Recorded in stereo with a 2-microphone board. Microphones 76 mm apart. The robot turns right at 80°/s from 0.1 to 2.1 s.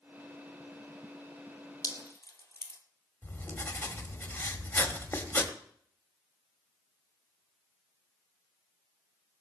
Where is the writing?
25° left (ahead or behind), 1.7 m.